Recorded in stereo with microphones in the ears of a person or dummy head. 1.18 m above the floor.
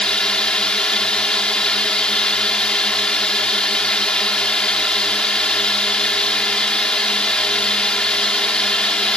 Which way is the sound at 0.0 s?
Centre (ahead or behind).